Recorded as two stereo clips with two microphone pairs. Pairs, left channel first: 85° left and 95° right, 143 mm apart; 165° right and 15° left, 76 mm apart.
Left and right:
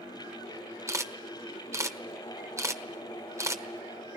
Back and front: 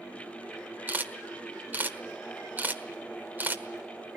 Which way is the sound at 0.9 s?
35° right.